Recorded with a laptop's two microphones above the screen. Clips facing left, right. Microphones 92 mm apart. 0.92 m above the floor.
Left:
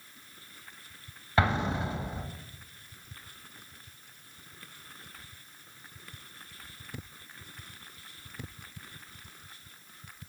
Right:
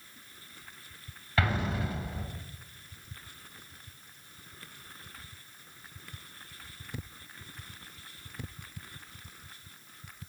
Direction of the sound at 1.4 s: 25° left (ahead or behind).